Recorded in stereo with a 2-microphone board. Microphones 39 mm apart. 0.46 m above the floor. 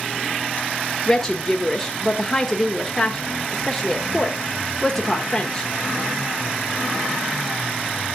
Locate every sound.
1.1 s a woman speaking: 15° left (ahead or behind), 0.9 m